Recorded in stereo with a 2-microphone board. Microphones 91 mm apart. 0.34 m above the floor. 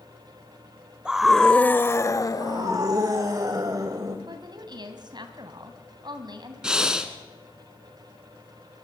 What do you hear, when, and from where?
1.1 s a scream: 10° right (ahead or behind), 1.0 m; by 3.0 s 55° left (ahead or behind), 1.7 m
2.4 s a scream: 45° right (ahead or behind), 1.9 m
4.3 s a woman speaking: 55° right (ahead or behind), 3 m
6.6 s breathing: 10° right (ahead or behind), 2 m